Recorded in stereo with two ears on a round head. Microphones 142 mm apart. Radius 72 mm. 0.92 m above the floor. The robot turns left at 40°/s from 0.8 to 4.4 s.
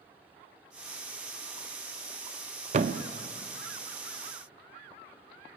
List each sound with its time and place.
2.7 s a thud: 40° right (ahead or behind), 0.7 m; by 3.1 s 55° right (ahead or behind), 0.7 m